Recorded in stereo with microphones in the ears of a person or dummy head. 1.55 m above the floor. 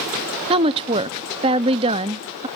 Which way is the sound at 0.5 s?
30° right (ahead or behind).